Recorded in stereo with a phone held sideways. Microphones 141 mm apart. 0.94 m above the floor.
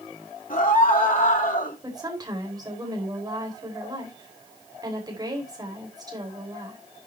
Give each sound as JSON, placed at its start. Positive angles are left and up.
{"t": 0.5, "sound": "a scream", "side_deg": 75, "distance_m": 3.0}
{"t": 1.8, "sound": "a woman speaking", "side_deg": -30, "distance_m": 5.0}